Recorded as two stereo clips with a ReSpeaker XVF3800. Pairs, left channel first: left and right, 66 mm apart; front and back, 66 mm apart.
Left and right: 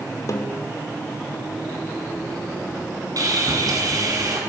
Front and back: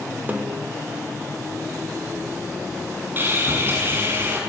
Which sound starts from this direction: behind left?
A snare drum, at 0.3 s.